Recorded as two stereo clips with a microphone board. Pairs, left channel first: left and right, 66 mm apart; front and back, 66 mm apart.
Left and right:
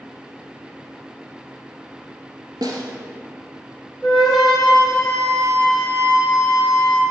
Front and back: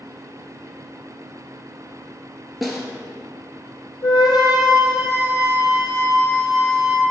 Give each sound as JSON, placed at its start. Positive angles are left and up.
{"t": 2.6, "sound": "a snare drum", "azimuth_deg": -90, "distance_m": 1.7}
{"t": 4.0, "sound": "a flute", "azimuth_deg": 0, "distance_m": 3.5}